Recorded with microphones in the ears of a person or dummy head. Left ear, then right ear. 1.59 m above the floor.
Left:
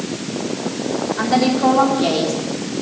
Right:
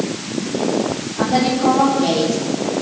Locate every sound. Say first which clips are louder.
1.2 s a woman speaking: even; 60° left (ahead or behind), 5 m